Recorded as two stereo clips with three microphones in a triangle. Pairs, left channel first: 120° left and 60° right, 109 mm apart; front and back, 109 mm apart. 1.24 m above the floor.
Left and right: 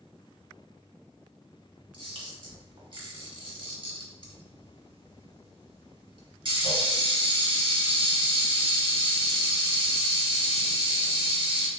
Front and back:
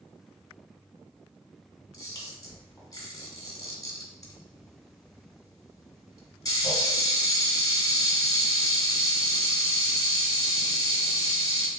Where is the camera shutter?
50° right, 1.6 m.